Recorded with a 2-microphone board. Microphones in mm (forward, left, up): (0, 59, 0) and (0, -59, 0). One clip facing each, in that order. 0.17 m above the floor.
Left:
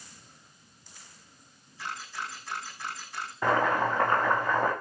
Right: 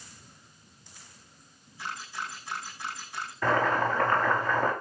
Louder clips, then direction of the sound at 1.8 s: Even; centre (ahead or behind).